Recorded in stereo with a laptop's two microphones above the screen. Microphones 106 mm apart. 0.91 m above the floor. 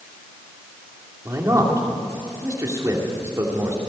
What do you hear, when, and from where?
1.2 s a man speaking: 30° right (ahead or behind), 2.5 m